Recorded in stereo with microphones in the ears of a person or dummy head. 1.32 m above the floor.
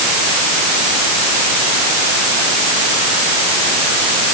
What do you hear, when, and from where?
Only background noise.